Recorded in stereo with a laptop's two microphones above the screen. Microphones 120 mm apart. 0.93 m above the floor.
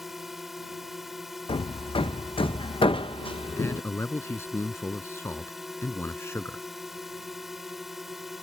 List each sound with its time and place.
0.0 s a drone: 5° right (ahead or behind)
1.5 s hammering: 45° left (ahead or behind)
3.6 s a man speaking: 20° left (ahead or behind)